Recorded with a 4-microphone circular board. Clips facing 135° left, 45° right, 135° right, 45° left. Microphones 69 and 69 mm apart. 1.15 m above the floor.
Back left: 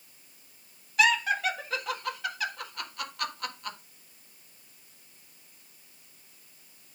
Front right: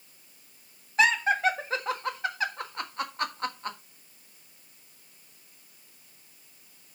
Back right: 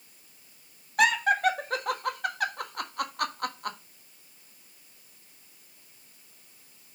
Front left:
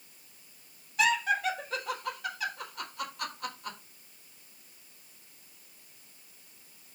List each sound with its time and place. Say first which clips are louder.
1.0 s laughter: front right 2 dB, back right 4 dB; 105° right, 1.4 m